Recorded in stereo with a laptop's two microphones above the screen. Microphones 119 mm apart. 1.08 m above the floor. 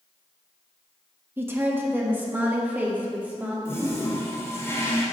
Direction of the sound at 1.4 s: 20° right (ahead or behind).